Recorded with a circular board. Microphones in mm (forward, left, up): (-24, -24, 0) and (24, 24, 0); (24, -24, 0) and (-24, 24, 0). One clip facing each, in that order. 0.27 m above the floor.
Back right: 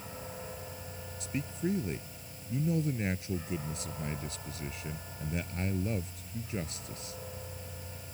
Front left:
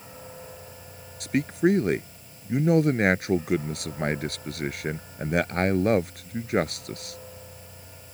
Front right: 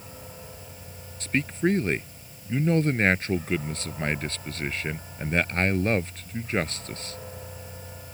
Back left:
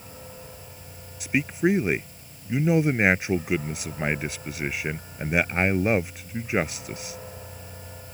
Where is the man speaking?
55° left.